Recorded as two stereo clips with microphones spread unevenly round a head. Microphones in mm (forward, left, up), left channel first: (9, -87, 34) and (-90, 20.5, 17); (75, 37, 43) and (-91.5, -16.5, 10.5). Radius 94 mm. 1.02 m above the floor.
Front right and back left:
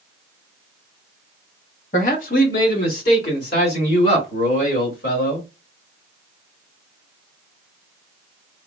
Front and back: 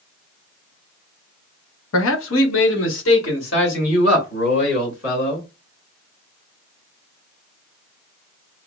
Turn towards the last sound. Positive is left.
turn(degrees=-15)